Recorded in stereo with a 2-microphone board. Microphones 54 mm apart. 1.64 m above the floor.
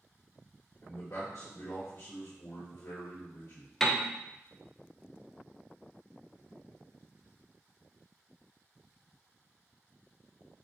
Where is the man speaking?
75° left (ahead or behind), 1.3 m.